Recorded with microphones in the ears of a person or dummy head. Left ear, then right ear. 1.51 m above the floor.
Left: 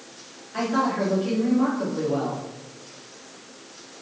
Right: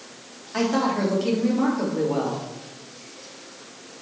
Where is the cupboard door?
No cupboard door in this recording.